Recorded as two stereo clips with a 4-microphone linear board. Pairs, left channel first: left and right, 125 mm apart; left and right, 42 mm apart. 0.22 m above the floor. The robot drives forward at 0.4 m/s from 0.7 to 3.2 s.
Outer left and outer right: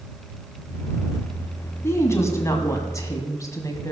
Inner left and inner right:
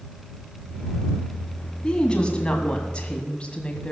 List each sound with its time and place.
1.8 s a woman speaking: 20° left (ahead or behind), 1.9 m; by 3.9 s 25° left (ahead or behind), 1.6 m